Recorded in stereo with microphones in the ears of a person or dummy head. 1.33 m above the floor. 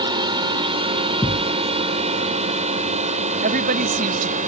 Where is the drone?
25° right (ahead or behind); by 4.5 s 40° right (ahead or behind).